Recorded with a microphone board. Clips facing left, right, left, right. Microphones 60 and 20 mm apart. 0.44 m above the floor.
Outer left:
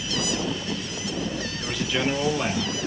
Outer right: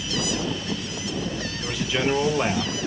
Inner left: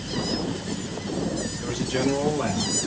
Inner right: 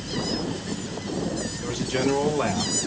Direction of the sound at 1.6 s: Centre (ahead or behind).